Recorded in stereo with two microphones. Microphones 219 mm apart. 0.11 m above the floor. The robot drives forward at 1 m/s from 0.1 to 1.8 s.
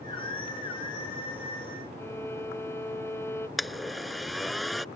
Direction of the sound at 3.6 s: Centre (ahead or behind).